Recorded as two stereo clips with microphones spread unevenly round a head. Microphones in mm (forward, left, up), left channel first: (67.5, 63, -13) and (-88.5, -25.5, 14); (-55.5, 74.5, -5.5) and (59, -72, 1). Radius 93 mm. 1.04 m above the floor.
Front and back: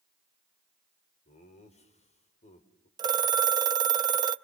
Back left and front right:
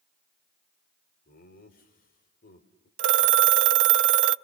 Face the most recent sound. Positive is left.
turn(degrees=-80)